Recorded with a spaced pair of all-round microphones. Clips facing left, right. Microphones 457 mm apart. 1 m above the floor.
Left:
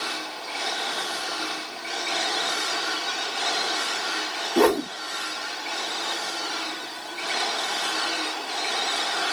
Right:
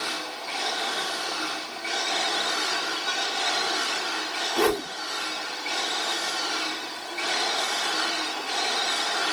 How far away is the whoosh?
About 0.6 m.